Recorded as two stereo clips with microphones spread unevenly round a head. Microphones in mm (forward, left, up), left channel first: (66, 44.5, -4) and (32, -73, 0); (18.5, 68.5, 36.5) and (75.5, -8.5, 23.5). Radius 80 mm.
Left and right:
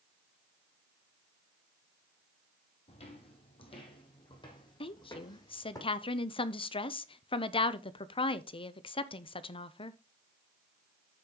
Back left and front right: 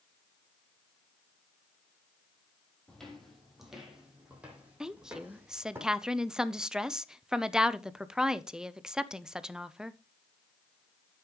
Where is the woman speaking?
30° left, 0.9 m.